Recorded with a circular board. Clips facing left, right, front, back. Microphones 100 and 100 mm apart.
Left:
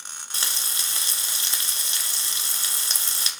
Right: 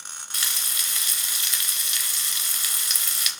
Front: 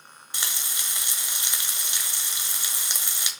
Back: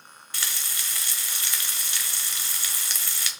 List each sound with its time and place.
0.3 s frying: 60° left, 1.1 m